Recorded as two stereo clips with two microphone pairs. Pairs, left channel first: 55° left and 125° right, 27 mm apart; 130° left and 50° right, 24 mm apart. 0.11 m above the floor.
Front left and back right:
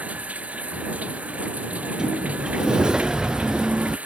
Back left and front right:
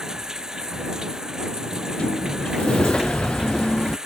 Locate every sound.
0.0 s running water: 115° right
1.7 s a sliding door: straight behind